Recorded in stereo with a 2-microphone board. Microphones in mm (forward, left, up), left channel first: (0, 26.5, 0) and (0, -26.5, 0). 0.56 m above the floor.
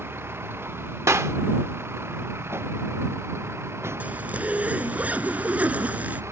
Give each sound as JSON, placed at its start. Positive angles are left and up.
{"t": 0.0, "sound": "a vehicle", "side_deg": -50}
{"t": 1.1, "sound": "a clap", "side_deg": -65}
{"t": 4.0, "sound": "a zipper", "side_deg": -30}